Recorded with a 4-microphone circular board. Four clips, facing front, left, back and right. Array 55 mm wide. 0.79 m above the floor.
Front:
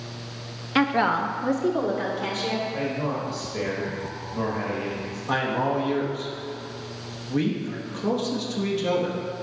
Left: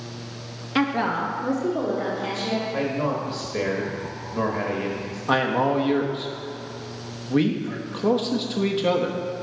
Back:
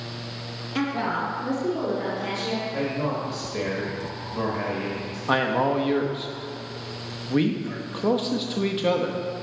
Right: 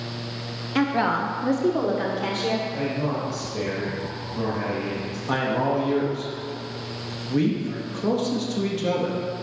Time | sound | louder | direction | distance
0.8 | a woman speaking | right 1 dB, front 5 dB | 20° left | 0.7 m
2.7 | a man speaking | left 1 dB, back 1 dB | 105° left | 1.2 m
5.3 | a man speaking | left 2 dB, back 2 dB | 140° left | 1.0 m